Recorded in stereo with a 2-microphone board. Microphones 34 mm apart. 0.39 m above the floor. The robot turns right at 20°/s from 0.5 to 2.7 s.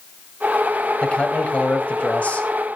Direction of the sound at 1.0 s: 30° left (ahead or behind).